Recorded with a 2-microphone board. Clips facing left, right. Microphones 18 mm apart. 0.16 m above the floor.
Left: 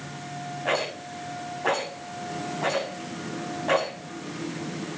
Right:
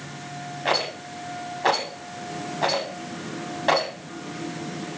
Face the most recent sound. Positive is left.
turn(degrees=-65)  # may be behind; listen again after turning